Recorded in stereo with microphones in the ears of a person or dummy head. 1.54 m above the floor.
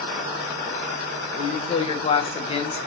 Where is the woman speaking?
30° left (ahead or behind), 1.3 m.